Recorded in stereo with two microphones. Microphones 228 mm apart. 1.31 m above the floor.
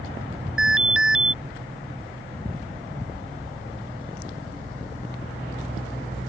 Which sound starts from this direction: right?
An alarm, at 0.6 s.